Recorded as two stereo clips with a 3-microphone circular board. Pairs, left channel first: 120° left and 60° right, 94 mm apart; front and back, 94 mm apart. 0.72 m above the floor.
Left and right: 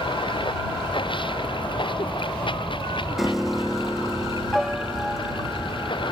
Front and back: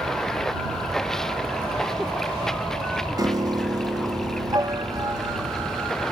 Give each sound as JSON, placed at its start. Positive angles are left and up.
{"t": 0.0, "sound": "running water", "azimuth_deg": 85}
{"t": 3.2, "sound": "a piano", "azimuth_deg": -150}